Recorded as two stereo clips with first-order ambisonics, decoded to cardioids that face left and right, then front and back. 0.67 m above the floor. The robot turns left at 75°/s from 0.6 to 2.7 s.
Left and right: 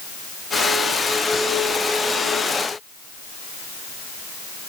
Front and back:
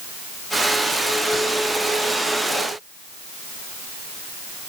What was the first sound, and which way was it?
Only background noise.